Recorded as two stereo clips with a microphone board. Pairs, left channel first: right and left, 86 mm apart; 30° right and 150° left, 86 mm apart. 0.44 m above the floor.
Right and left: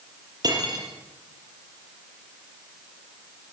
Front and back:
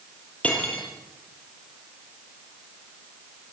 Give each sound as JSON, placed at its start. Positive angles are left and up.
{"t": 0.4, "sound": "cutlery clinking", "azimuth_deg": 45, "distance_m": 7.0}